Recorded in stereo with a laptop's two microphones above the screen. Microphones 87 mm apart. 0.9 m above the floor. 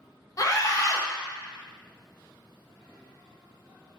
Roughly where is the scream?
Left.